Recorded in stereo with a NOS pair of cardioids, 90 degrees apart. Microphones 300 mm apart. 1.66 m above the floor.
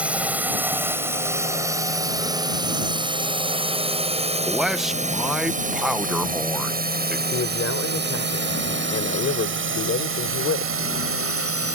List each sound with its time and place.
0.0 s a drone: 5° right; by 11.8 s 50° right
4.5 s a man speaking: straight ahead
7.3 s a man speaking: 45° left